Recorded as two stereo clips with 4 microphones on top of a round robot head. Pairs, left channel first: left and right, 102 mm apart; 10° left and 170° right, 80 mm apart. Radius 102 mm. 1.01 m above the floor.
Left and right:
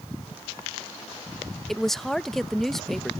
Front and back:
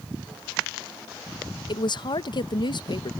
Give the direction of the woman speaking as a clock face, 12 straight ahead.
12 o'clock.